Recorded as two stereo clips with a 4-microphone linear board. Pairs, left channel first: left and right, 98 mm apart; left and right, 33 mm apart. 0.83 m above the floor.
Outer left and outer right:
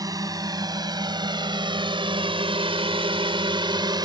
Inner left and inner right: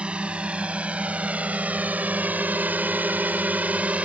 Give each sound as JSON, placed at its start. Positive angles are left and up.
{"t": 0.0, "sound": "a drone", "side_deg": -40}